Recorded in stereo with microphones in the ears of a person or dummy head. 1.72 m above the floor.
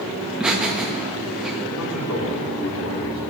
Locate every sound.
0.2 s laughter: 5° right (ahead or behind), 1.9 m
1.7 s a man speaking: 85° left, 5 m